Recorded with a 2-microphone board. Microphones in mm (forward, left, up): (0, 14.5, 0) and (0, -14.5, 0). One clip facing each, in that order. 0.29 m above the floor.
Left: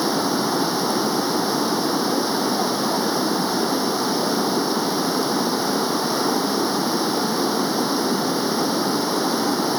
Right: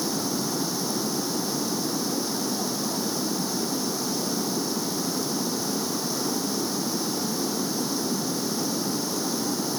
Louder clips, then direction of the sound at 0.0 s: Left 7 dB; 35° left (ahead or behind).